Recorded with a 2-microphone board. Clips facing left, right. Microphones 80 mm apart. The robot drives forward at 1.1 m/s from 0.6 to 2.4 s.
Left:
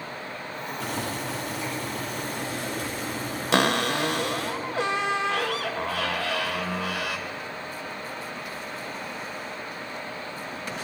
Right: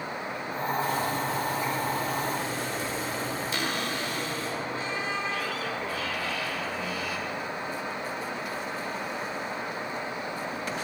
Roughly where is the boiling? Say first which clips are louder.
Even; left.